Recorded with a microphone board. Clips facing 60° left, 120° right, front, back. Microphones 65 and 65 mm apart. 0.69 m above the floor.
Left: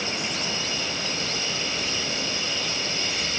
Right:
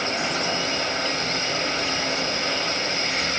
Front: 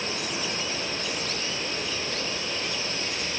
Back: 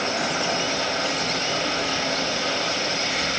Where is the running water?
170° right, 1.3 m.